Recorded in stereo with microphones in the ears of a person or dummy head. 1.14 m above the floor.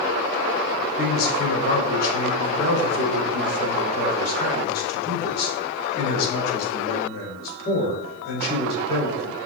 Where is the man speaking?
50° left (ahead or behind), 4 m.